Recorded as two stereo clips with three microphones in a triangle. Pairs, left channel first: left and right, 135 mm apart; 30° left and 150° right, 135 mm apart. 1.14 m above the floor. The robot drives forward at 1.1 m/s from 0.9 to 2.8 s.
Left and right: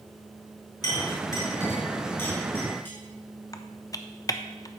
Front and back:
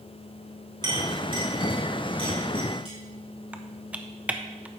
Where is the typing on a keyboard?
135° left, 0.5 m.